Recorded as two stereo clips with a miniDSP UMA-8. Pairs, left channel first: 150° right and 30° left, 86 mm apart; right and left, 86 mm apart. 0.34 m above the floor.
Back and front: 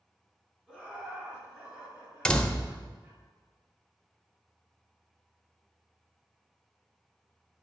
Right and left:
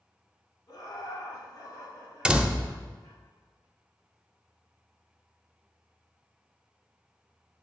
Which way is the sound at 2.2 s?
150° left.